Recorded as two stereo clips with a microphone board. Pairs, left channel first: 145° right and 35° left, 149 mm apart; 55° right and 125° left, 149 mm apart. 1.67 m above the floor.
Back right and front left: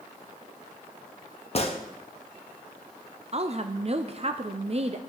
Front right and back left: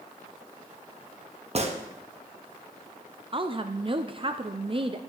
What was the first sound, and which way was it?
A gunshot, 170° left.